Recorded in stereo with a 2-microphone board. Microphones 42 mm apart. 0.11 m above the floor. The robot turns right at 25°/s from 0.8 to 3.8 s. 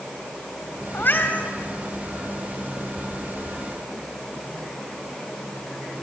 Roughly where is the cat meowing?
Left.